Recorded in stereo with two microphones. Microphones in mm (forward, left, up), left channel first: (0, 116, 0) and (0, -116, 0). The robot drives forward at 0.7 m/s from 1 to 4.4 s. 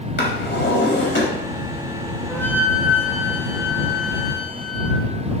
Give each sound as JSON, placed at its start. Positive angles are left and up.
{"t": 0.2, "sound": "a drawer", "side_deg": 55, "distance_m": 3.5}
{"t": 2.3, "sound": "a flute", "side_deg": 10, "distance_m": 4.5}